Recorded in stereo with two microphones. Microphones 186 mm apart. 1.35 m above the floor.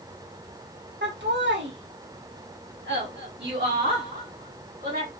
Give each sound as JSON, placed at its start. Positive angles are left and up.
{"t": 1.0, "sound": "laughter", "side_deg": -75, "distance_m": 2.5}